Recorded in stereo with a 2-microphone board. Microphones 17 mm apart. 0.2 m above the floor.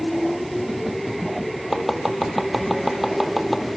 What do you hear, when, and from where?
1.7 s chopping: 15° right (ahead or behind), 1.4 m